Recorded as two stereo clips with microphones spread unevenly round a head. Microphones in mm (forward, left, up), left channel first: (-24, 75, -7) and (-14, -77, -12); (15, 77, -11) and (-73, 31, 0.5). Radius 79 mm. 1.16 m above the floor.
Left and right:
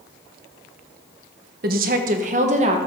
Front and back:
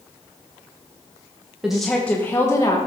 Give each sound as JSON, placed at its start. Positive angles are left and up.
{"t": 1.6, "sound": "a woman speaking", "azimuth_deg": -65, "distance_m": 1.0}